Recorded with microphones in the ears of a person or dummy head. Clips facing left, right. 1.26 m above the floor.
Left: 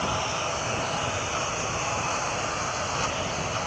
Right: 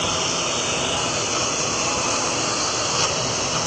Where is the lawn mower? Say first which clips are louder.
Right 4 dB; 50° right (ahead or behind); by 3.7 s 60° right (ahead or behind).